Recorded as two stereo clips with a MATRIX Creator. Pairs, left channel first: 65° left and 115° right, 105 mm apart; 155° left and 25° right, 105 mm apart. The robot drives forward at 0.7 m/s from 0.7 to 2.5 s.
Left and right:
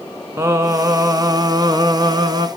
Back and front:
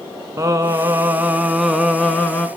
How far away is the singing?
About 1.4 m.